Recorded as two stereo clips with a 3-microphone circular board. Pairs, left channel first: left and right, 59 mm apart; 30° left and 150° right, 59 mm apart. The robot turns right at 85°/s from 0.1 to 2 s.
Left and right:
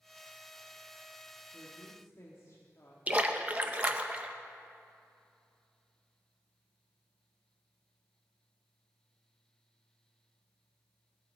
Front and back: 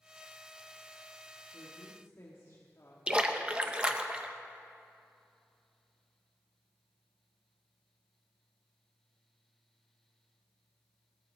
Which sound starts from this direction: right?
A splash, at 3.1 s.